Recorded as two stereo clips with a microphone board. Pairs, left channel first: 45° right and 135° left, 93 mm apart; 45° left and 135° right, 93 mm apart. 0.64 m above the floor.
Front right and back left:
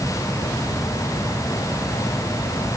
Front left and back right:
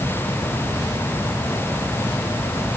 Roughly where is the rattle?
I don't hear a rattle.